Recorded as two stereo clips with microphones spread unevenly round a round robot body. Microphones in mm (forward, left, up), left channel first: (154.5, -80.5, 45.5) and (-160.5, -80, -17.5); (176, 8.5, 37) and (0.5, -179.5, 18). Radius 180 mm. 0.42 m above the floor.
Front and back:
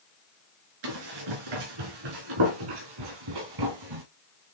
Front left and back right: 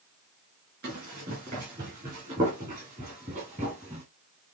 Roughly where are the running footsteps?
Behind.